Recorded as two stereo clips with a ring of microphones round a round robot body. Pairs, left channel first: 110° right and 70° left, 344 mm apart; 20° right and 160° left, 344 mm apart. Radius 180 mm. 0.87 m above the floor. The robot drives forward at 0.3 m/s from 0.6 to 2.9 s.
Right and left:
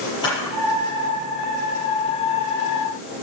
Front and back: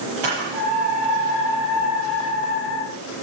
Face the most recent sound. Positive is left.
turn(degrees=170)